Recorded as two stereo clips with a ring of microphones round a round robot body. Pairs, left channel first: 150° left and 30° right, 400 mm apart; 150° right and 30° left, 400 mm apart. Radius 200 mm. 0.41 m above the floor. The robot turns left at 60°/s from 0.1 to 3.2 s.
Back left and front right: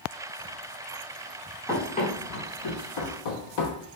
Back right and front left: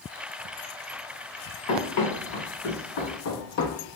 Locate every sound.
1.7 s running footsteps: 120° right, 1.7 m; by 3.9 s 160° left, 0.5 m